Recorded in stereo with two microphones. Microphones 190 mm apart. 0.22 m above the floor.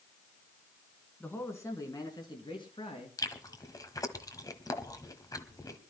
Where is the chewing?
20° left (ahead or behind), 1.3 m.